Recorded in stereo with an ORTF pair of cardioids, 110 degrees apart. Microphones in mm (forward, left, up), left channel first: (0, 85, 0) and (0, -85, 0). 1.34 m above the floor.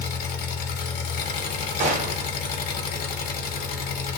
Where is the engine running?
60° left, 0.8 m.